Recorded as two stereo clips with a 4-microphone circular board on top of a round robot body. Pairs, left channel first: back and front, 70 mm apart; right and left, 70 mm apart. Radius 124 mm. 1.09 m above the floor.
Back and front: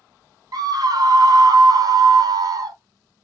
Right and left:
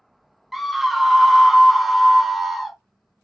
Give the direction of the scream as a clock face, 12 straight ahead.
12 o'clock.